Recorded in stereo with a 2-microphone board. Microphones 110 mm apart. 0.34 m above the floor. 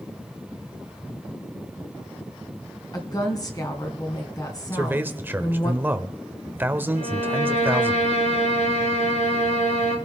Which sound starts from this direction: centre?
A man speaking, at 4.7 s.